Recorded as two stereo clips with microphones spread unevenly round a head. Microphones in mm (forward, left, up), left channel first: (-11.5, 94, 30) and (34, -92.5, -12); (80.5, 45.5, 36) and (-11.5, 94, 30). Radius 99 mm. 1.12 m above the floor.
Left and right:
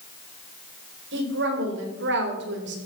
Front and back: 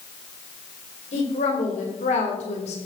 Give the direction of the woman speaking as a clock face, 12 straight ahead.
2 o'clock.